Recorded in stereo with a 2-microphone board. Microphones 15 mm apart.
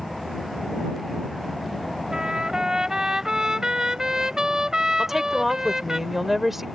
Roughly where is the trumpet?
Right.